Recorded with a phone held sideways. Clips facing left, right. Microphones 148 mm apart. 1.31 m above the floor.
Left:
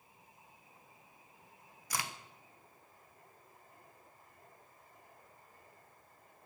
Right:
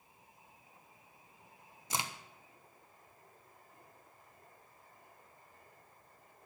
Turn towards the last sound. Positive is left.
turn(degrees=-20)  # may be behind; listen again after turning